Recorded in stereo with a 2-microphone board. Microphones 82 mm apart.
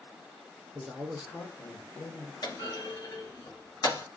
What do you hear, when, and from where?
0.8 s a man speaking: 35° right (ahead or behind), 0.9 m; by 2.3 s 35° left (ahead or behind), 1.2 m
2.4 s a clunk: 60° left (ahead or behind), 1.1 m